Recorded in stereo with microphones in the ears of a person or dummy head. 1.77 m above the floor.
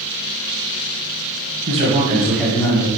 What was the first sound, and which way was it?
A man speaking, 40° right (ahead or behind).